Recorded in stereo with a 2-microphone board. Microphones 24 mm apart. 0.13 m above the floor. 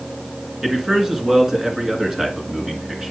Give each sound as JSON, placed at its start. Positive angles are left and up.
{"t": 0.6, "sound": "a man speaking", "side_deg": -20, "distance_m": 1.9}